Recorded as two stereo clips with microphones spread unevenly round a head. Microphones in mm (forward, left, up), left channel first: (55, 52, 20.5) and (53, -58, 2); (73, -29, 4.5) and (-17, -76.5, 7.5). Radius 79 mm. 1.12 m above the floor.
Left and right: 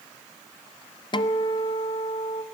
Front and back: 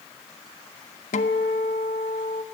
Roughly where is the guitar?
Ahead left.